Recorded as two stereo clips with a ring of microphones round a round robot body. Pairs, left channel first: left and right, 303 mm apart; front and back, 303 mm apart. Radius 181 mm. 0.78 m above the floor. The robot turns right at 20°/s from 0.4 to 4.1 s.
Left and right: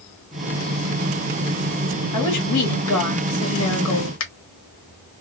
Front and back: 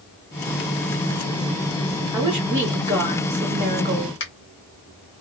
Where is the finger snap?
55° left, 1.4 m.